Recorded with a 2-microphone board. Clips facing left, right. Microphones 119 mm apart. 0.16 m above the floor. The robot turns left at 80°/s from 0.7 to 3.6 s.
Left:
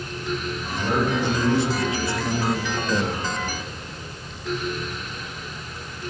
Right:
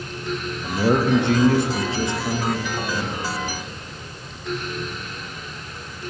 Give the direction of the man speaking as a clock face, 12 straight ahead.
2 o'clock.